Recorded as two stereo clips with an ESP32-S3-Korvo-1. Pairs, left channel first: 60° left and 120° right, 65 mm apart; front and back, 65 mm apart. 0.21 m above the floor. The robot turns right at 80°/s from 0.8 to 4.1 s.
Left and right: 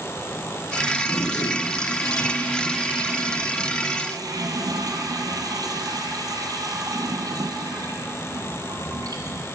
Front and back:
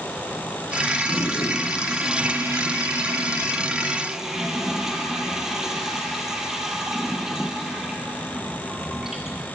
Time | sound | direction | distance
1.1 | a toilet flushing | 20° left | 3 m